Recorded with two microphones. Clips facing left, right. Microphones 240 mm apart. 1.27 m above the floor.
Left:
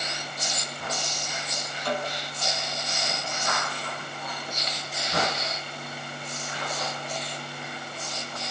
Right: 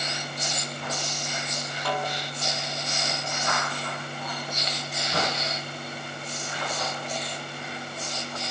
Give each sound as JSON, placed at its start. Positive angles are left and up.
{"t": 1.9, "sound": "a snare drum", "side_deg": -60, "distance_m": 4.5}